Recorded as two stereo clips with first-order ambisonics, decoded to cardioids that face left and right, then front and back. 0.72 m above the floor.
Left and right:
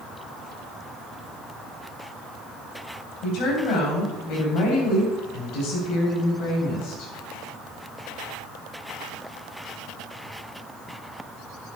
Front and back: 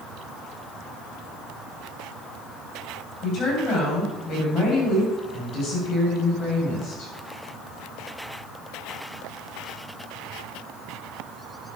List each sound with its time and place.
3.2 s a woman speaking: 55° left, 3.5 m